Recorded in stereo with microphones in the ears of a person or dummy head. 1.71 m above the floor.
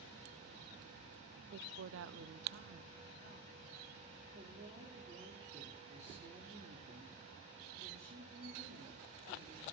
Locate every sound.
1.5 s a woman speaking: 55° right (ahead or behind), 0.7 m; by 3.5 s 50° right (ahead or behind), 1.7 m
4.3 s a woman speaking: 35° right (ahead or behind), 4 m